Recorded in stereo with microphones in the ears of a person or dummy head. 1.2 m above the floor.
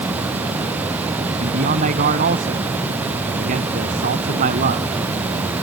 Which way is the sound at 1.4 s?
50° right (ahead or behind).